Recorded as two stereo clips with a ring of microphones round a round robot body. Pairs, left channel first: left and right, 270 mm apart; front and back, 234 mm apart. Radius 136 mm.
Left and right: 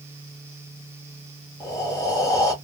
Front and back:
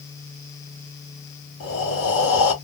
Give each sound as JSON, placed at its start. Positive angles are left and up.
{"t": 1.6, "sound": "breathing", "azimuth_deg": 15, "distance_m": 3.0}